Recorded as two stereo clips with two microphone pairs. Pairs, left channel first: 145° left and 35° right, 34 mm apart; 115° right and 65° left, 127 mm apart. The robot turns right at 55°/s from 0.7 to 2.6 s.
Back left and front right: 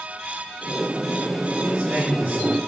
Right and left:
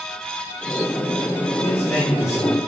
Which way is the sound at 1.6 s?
55° right.